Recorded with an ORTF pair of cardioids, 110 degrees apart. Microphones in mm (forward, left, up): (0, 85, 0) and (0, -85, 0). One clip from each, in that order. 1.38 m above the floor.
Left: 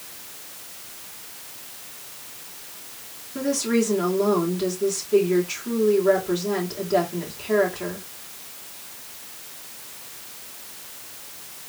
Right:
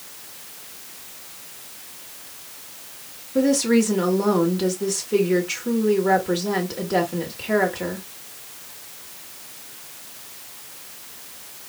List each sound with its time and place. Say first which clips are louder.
3.4 s a woman speaking: right 4 dB; 35° right, 3 m